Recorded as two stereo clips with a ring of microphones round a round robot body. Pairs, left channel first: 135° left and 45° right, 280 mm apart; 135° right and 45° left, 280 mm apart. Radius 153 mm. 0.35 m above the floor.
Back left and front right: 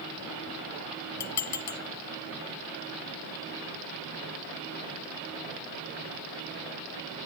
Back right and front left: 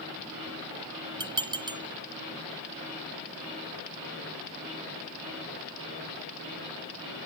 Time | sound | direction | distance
1.2 | dishes clattering | 120° left | 1.6 m